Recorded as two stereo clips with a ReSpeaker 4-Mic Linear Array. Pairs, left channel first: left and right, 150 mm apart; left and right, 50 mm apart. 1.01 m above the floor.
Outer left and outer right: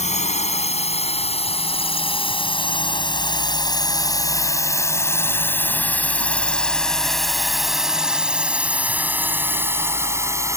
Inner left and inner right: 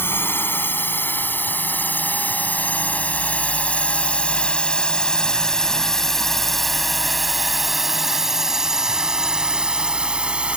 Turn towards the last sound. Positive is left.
turn(degrees=-20)  # may be behind; listen again after turning